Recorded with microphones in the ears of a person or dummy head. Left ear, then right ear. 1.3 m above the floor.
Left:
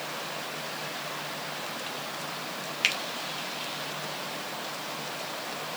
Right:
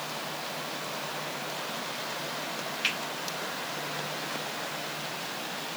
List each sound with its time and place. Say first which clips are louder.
2.8 s a finger snap: left 4 dB; 30° left (ahead or behind), 1.1 m